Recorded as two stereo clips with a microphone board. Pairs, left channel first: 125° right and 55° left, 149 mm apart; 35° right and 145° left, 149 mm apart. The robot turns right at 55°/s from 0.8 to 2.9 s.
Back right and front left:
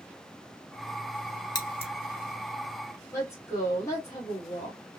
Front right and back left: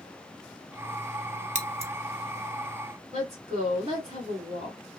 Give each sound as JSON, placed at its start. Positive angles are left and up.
{"t": 1.6, "sound": "scissors", "azimuth_deg": 175, "distance_m": 0.6}
{"t": 3.1, "sound": "a woman speaking", "azimuth_deg": 170, "distance_m": 1.6}